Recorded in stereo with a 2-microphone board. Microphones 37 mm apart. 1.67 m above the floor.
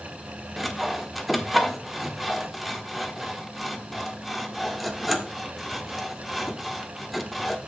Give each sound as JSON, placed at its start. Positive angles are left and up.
{"t": 0.6, "sound": "sawing", "side_deg": -5, "distance_m": 1.4}